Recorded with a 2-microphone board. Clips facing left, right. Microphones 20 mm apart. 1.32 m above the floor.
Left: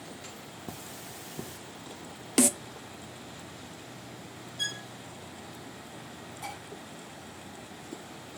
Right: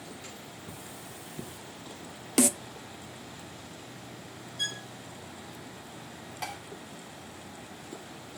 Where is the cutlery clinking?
55° left (ahead or behind), 1.6 m.